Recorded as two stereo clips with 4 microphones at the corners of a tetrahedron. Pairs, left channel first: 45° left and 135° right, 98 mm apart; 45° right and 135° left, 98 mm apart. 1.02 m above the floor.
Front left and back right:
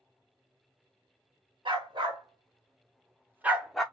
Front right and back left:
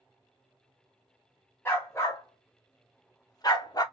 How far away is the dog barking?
About 1.6 m.